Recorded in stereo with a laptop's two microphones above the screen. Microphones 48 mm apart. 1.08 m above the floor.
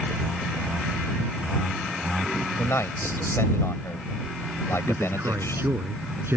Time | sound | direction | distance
2.6 | a man speaking | 65° left (ahead or behind) | ?
4.9 | a man speaking | 60° right (ahead or behind) | ?